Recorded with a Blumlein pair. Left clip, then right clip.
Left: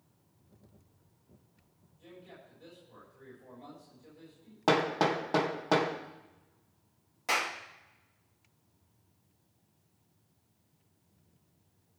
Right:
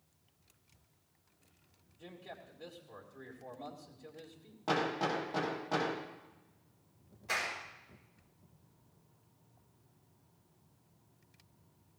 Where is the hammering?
55° left, 2 m.